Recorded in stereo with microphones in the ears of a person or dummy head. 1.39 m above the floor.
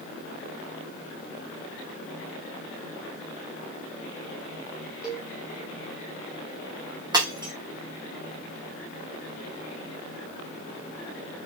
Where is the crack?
No crack in this recording.